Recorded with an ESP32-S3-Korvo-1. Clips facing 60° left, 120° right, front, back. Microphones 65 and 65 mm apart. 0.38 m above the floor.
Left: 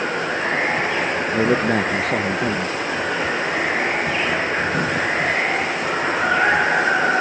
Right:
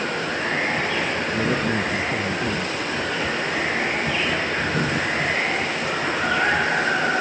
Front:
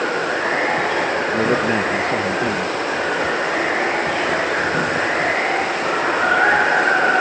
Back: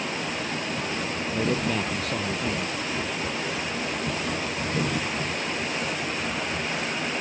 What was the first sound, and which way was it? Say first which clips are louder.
Running water: left 3 dB, front 10 dB; 10° right.